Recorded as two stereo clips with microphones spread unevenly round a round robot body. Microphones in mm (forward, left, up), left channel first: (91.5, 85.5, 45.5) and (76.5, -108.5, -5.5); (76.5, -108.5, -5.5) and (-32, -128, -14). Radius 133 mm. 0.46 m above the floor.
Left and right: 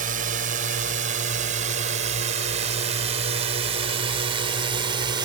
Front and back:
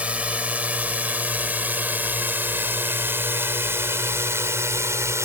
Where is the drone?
95° right; by 5.2 s 120° right.